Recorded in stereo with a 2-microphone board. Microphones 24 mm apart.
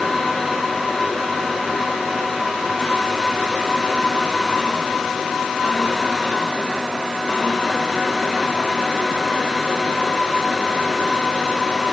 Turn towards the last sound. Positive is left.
No sound to turn to.